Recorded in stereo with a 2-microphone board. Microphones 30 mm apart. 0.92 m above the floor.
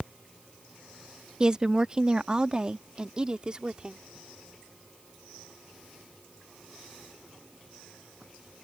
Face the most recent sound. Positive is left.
turn(degrees=-25)  # may be behind; listen again after turning